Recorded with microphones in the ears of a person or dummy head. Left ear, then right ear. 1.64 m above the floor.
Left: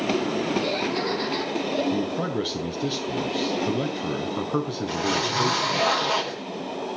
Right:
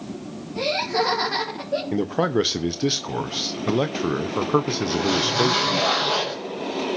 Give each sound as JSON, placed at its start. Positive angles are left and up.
{"t": 0.6, "sound": "laughter", "side_deg": -45, "distance_m": 3.5}
{"t": 1.9, "sound": "a man speaking", "side_deg": -30, "distance_m": 0.7}
{"t": 4.9, "sound": "a zipper", "side_deg": 20, "distance_m": 6.5}